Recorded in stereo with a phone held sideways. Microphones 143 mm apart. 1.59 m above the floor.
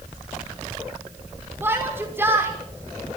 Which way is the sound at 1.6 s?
15° right (ahead or behind).